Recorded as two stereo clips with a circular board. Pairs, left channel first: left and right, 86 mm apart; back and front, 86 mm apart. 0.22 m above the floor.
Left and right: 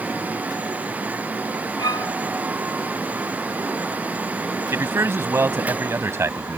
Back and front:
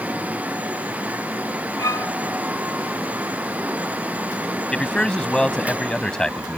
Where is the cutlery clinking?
I don't hear cutlery clinking.